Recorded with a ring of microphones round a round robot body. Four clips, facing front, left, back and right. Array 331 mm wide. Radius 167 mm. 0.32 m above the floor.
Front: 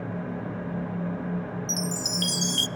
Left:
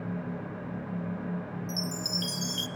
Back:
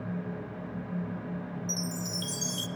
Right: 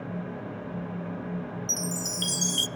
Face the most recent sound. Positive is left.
turn(degrees=-50)